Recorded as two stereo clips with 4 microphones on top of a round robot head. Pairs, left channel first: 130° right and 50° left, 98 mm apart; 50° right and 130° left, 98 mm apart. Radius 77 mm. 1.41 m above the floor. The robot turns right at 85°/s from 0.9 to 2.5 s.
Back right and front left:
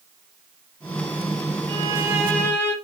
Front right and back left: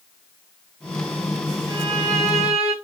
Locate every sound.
1.7 s a violin: 85° left, 3.5 m; by 2.7 s 155° left, 3.5 m